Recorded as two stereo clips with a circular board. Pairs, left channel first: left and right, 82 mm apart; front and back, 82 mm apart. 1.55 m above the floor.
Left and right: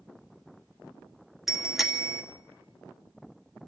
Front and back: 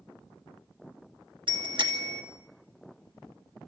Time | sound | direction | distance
1.5 | a bicycle bell | straight behind | 3 m